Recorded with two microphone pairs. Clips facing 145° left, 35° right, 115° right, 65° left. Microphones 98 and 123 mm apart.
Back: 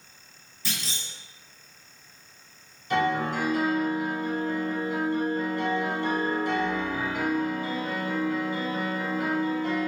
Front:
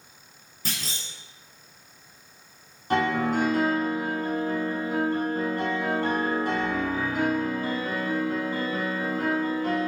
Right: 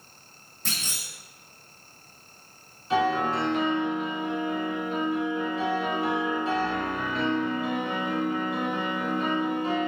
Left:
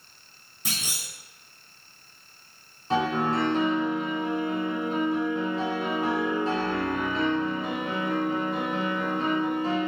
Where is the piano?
10° left, 1.0 m.